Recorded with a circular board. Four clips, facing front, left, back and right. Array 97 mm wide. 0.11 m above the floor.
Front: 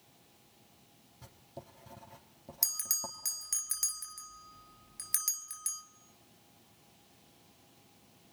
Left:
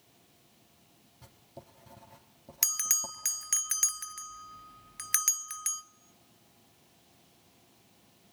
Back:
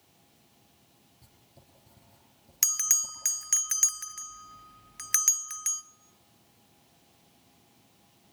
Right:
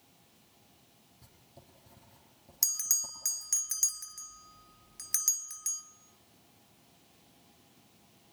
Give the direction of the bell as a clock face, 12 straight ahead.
7 o'clock.